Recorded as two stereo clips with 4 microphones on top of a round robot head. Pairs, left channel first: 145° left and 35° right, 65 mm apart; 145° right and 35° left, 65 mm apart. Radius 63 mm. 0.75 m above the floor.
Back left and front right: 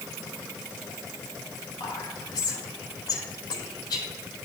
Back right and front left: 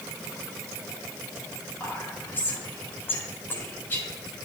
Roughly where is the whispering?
Behind left.